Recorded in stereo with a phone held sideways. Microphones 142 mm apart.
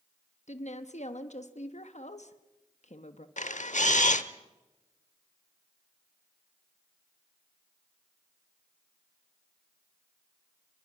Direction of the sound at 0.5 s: 60° left (ahead or behind).